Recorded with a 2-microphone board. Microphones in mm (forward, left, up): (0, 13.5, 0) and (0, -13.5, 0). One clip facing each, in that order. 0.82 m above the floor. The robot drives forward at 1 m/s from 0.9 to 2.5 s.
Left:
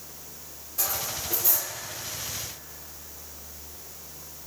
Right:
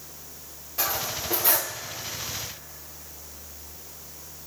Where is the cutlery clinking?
25° right (ahead or behind), 1.3 m; by 1.8 s 60° right (ahead or behind), 0.6 m.